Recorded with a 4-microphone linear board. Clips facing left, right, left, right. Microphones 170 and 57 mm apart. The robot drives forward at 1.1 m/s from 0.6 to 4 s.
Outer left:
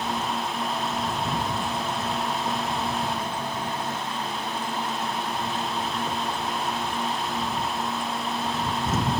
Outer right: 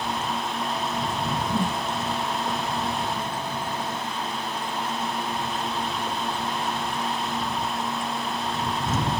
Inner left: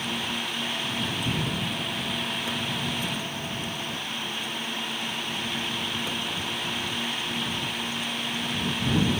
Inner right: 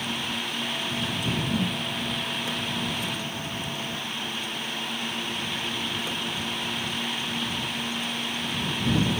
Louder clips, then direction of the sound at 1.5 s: Outer right 3 dB, inner right 3 dB; 80° right.